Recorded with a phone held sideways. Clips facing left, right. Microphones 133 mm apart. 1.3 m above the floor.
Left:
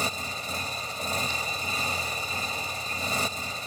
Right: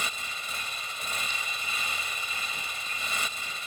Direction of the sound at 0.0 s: 40° left (ahead or behind).